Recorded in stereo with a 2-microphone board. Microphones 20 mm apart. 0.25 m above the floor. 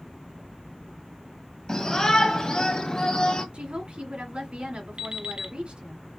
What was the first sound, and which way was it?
A shout, 30° left (ahead or behind).